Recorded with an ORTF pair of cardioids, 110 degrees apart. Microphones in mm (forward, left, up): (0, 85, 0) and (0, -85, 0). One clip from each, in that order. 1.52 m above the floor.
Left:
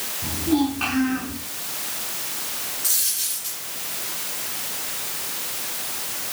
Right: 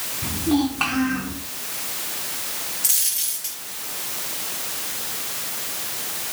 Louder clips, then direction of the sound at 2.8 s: Even; 50° right.